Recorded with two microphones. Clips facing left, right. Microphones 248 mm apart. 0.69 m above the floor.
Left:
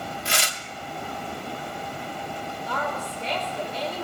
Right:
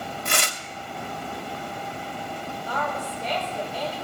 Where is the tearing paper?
55° right (ahead or behind), 0.8 m.